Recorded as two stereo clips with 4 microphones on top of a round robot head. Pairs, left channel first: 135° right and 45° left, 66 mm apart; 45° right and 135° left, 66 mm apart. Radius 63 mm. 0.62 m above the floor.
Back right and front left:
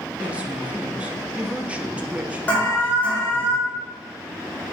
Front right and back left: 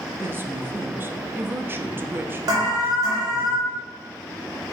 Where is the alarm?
155° left, 4.5 m.